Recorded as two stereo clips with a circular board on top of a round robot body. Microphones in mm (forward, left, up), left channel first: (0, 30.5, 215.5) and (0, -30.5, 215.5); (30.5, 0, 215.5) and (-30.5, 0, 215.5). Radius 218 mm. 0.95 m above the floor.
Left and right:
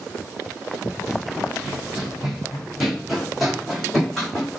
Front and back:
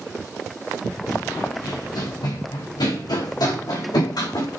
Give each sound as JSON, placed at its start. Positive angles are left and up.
{"t": 1.1, "sound": "running footsteps", "azimuth_deg": -10, "distance_m": 3.0}